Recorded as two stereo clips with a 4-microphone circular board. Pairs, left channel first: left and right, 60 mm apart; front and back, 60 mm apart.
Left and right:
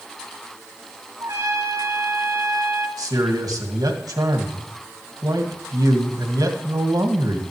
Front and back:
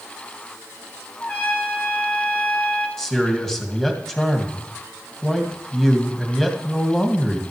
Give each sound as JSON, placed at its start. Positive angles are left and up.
{"t": 1.2, "sound": "a trumpet", "azimuth_deg": -65, "distance_m": 2.5}
{"t": 3.0, "sound": "a man speaking", "azimuth_deg": -85, "distance_m": 1.9}